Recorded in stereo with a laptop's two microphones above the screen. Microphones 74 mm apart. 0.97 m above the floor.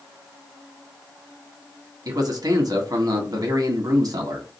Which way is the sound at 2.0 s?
55° right (ahead or behind).